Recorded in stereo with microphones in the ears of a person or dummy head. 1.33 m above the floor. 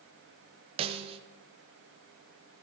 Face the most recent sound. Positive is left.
turn(degrees=-30)  # may be behind; listen again after turning